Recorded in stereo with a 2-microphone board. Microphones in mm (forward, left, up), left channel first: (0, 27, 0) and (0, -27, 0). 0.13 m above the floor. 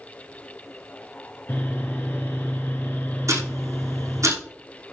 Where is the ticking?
70° right (ahead or behind), 5.5 m.